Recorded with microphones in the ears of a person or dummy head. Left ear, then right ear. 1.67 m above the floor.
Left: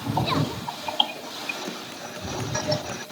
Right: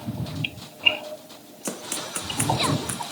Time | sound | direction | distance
1.6 | running footsteps | 35° right (ahead or behind) | ?